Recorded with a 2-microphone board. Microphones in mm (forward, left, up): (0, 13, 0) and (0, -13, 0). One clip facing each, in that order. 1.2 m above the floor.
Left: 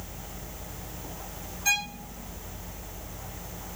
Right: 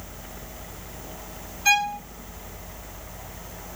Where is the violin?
35° right (ahead or behind), 1.7 m.